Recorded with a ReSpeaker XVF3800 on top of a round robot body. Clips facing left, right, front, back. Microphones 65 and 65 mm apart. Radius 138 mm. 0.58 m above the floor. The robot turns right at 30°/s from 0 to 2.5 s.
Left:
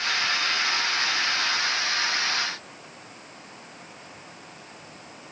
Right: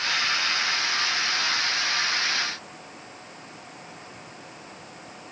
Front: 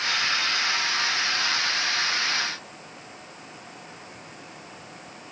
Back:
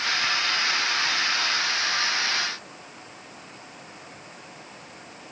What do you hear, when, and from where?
Only background noise.